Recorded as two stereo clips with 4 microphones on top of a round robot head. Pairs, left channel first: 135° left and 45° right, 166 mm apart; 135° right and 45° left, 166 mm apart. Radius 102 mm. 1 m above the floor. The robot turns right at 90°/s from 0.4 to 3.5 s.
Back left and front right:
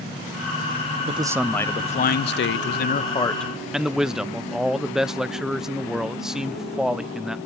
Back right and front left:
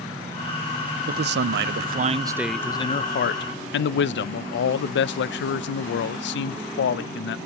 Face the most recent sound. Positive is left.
turn(degrees=-135)